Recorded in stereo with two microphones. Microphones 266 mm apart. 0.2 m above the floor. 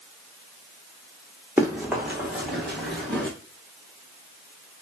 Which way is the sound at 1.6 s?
10° right (ahead or behind).